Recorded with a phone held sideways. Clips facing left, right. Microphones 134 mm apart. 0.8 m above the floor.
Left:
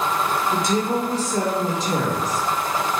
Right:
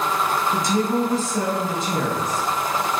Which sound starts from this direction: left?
A woman speaking, at 0.5 s.